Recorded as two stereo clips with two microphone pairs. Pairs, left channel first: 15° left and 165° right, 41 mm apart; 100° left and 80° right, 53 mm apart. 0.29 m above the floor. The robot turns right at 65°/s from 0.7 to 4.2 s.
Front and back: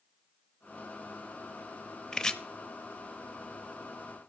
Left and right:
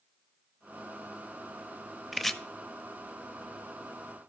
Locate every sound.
2.1 s chopping: 20° left, 0.5 m; by 2.4 s 35° left, 0.5 m